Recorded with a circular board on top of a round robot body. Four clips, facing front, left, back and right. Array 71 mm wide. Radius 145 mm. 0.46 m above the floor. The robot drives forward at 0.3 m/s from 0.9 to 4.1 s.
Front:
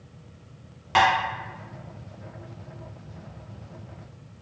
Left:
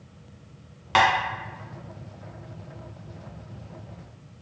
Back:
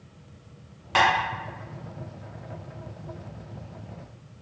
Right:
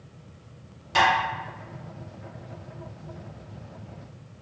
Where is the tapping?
75° left, 1.6 m; by 1.1 s 80° left, 1.6 m.